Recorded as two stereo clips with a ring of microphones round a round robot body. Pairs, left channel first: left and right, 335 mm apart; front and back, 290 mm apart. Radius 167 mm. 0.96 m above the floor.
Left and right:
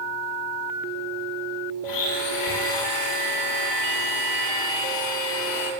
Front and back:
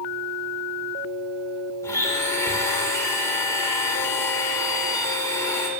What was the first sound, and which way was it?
A blender, 80° left.